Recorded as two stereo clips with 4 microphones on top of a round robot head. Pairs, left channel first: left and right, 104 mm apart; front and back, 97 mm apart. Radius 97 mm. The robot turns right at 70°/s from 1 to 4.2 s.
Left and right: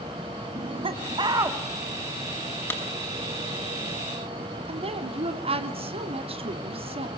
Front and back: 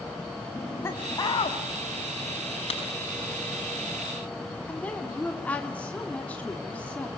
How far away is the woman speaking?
About 2.5 m.